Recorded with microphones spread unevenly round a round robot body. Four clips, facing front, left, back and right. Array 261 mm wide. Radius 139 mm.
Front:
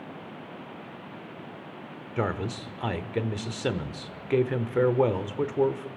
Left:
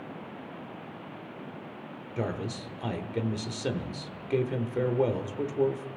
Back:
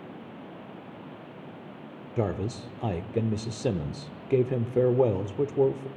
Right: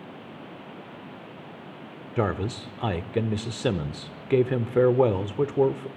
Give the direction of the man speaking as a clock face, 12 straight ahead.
3 o'clock.